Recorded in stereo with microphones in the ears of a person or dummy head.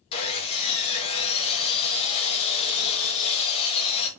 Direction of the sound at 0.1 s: 35° left (ahead or behind).